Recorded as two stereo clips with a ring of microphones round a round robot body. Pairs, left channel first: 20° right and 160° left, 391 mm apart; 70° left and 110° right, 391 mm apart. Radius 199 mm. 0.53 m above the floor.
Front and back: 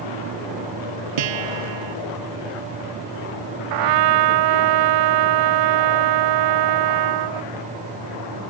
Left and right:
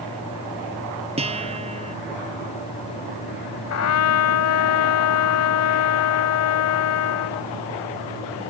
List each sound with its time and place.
1.2 s a guitar: 170° left
3.7 s a trumpet: 120° left